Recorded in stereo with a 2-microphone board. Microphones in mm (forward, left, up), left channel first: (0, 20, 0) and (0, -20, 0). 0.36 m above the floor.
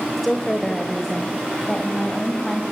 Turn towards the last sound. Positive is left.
turn(degrees=10)  # may be behind; listen again after turning